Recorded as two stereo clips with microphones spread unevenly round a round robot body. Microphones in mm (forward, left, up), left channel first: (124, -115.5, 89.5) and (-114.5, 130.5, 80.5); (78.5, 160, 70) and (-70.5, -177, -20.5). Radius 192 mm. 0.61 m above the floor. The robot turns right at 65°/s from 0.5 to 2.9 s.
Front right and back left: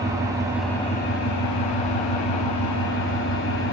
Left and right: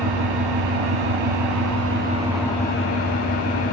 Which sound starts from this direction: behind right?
An engine running, at 0.0 s.